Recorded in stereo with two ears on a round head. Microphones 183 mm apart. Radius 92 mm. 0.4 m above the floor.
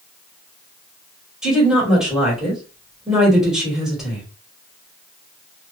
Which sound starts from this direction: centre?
A woman speaking, at 1.4 s.